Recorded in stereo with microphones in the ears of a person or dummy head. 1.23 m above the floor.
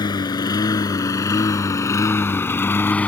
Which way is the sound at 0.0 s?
20° left (ahead or behind).